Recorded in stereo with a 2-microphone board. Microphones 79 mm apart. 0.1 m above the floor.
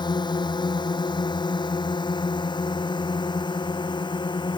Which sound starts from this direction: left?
A drone, at 0.0 s.